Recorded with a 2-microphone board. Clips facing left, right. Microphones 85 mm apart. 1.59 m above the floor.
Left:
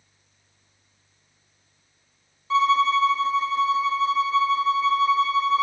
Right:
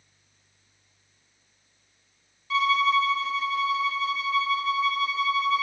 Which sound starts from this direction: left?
A violin, at 2.5 s.